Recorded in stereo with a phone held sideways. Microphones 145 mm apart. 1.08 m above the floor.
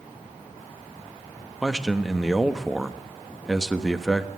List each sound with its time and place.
1.6 s a man speaking: centre (ahead or behind), 1.2 m